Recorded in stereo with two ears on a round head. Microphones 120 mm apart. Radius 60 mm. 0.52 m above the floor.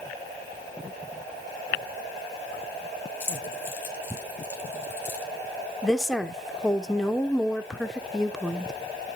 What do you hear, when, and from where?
3.2 s keys jangling: 15° left (ahead or behind), 5 m
5.8 s a woman speaking: centre (ahead or behind), 0.9 m